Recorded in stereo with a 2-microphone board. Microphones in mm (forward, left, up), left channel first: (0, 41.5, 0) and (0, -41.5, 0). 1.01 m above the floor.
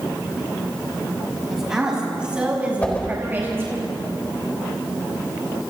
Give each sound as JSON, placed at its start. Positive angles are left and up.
{"t": 1.5, "sound": "a woman speaking", "side_deg": -5, "distance_m": 6.0}
{"t": 2.8, "sound": "a whoosh", "side_deg": 15, "distance_m": 3.5}